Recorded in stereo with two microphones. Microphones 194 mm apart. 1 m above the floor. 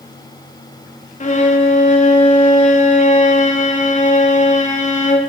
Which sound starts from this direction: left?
A violin, at 1.2 s.